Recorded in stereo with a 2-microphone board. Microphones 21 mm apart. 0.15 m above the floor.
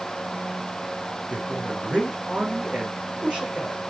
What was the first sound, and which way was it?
A man speaking, 65° right (ahead or behind).